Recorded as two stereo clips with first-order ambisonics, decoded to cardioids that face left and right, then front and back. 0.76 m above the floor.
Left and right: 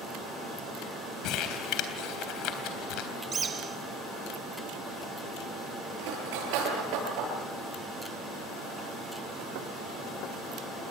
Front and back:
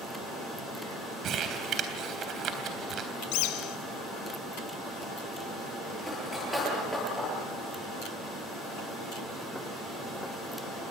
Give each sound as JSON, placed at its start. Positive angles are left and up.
{"t": 1.2, "sound": "crumpling", "azimuth_deg": 125, "distance_m": 3.5}
{"t": 3.3, "sound": "a bird", "azimuth_deg": -20, "distance_m": 1.7}
{"t": 6.0, "sound": "cutlery clinking", "azimuth_deg": -90, "distance_m": 9.0}